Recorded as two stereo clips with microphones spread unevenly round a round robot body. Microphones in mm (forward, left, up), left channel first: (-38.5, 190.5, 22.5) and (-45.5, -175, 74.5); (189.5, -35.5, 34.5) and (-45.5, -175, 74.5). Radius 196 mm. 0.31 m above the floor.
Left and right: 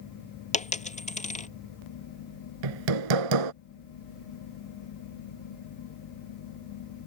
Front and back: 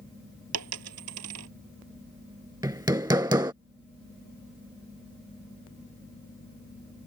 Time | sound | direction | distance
0.5 | a dropped coin | 160° left | ?
2.6 | hammering | 70° right | ?